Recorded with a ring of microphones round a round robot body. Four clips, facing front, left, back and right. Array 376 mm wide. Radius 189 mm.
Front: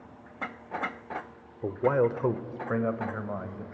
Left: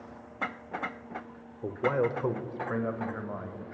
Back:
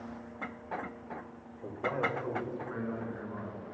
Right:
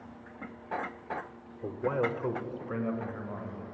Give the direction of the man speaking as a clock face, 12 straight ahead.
12 o'clock.